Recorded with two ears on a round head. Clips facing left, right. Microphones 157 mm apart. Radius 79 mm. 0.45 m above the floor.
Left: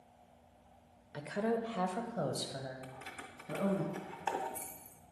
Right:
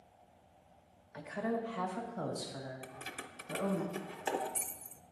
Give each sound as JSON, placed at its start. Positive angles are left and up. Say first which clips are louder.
{"t": 1.1, "sound": "a woman speaking", "louder": "left 2 dB", "side_deg": 45, "distance_m": 1.1}
{"t": 2.8, "sound": "keys jangling", "louder": "right 1 dB", "side_deg": -35, "distance_m": 0.7}